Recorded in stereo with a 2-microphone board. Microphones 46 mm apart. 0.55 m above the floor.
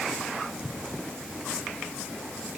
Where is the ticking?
I don't hear ticking.